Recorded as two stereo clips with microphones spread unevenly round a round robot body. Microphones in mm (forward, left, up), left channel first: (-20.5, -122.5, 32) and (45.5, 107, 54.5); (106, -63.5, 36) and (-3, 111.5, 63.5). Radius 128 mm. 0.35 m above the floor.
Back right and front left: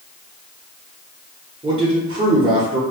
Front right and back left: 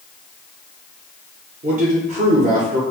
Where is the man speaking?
135° left, 1.0 m.